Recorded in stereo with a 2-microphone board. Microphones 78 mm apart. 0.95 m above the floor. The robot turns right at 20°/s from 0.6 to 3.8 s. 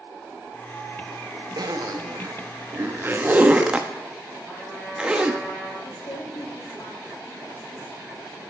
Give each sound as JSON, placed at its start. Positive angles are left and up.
{"t": 1.6, "sound": "a zipper", "side_deg": -55, "distance_m": 0.8}
{"t": 4.5, "sound": "a trumpet", "side_deg": 25, "distance_m": 5.5}
{"t": 5.8, "sound": "a woman speaking", "side_deg": 70, "distance_m": 2.5}